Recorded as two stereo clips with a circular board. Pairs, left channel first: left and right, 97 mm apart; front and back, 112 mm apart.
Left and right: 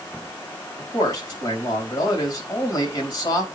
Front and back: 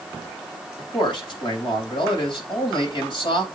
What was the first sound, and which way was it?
A man speaking, 40° left.